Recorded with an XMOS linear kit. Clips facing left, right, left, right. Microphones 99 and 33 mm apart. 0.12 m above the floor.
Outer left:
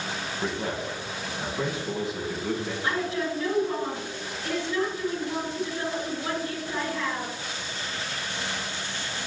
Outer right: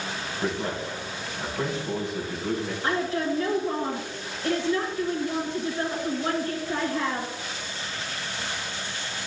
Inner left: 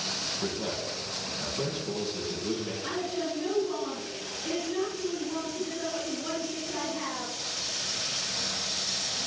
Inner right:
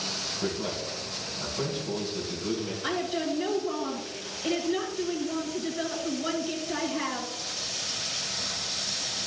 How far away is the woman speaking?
About 1.9 m.